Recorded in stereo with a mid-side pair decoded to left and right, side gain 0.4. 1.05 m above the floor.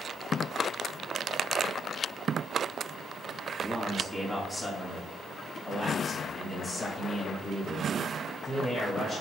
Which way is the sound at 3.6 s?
5° left.